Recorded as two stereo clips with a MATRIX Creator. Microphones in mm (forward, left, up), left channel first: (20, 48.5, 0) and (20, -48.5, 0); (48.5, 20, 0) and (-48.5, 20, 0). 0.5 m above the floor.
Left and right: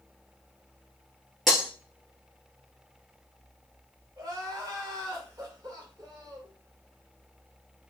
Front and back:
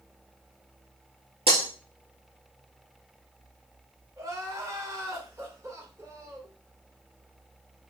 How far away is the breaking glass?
About 2.0 m.